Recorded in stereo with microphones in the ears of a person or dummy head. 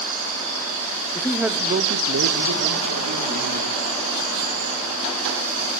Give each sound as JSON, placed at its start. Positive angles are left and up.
{"t": 1.1, "sound": "a man speaking", "side_deg": 20, "distance_m": 0.7}